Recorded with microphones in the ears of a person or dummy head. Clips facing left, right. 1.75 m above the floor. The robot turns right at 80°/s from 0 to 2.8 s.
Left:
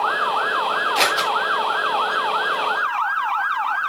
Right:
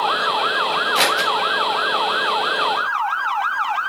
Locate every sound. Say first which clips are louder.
0.9 s scissors: right 1 dB; 15° right (ahead or behind), 8.5 m; by 1.3 s 10° left (ahead or behind), 8.5 m